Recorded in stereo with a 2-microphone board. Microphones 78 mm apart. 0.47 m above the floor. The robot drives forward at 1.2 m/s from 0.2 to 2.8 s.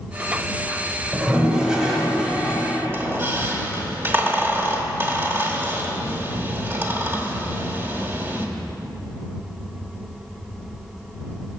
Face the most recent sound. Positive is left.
turn(degrees=-30)  # may be behind; listen again after turning